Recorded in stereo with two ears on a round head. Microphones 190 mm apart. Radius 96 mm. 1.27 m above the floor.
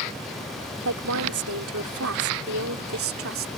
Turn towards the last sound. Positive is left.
turn(degrees=-70)  # may be behind; listen again after turning